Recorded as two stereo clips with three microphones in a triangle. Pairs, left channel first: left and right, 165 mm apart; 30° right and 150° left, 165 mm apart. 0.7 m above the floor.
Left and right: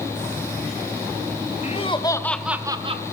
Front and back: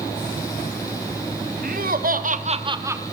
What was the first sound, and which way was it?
Laughter, 135° left.